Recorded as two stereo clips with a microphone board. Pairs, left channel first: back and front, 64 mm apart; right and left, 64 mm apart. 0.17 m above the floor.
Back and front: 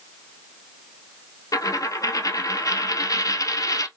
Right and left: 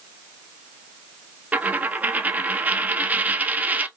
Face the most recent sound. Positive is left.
turn(degrees=155)